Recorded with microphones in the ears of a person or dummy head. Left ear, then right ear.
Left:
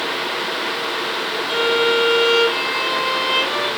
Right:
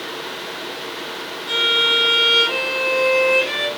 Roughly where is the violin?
Right.